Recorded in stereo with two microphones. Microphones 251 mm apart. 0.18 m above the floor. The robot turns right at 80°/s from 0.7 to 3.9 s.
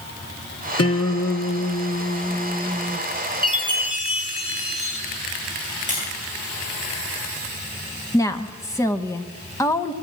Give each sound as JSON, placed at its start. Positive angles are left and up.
{"t": 0.8, "sound": "a guitar", "azimuth_deg": 75, "distance_m": 2.5}
{"t": 3.4, "sound": "a chime", "azimuth_deg": -40, "distance_m": 2.5}
{"t": 5.9, "sound": "tapping", "side_deg": -30, "distance_m": 10.0}
{"t": 8.1, "sound": "a woman speaking", "side_deg": 10, "distance_m": 1.0}